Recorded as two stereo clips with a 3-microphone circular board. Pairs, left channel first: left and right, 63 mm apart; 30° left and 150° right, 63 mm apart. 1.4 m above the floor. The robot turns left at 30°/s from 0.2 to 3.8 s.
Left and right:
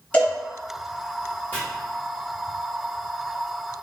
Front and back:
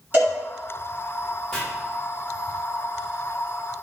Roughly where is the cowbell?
Behind.